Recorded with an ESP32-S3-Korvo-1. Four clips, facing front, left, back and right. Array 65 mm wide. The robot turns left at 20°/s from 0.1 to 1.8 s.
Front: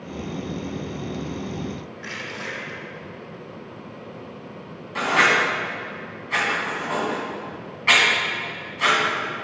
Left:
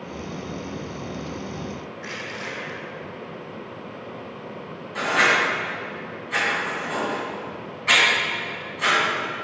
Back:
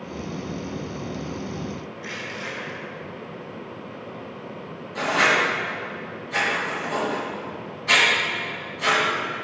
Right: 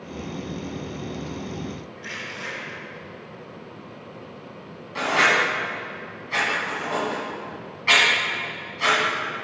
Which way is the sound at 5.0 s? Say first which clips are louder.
Even, front 2 dB; 10° right.